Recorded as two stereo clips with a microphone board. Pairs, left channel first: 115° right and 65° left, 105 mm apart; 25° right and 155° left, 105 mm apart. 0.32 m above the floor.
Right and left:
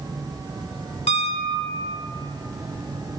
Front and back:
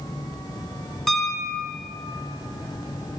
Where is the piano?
110° right, 0.6 m.